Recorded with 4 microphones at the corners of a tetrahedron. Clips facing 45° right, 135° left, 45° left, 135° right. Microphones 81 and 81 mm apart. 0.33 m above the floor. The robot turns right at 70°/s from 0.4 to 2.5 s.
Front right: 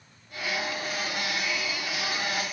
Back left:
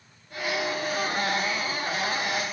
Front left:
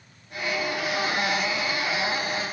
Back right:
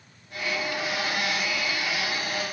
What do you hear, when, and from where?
Only background noise.